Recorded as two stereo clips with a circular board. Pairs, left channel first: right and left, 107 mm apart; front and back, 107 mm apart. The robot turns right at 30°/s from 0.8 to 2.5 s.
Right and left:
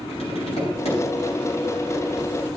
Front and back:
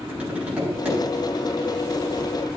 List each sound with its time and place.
0.1 s tapping: 100° right, 8 m; by 1.0 s 95° right, 8 m